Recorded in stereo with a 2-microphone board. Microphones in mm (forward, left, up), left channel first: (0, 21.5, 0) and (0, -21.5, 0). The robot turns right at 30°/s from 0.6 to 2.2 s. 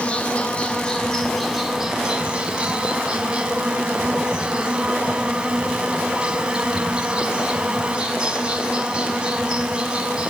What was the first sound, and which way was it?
An insect, 155° left.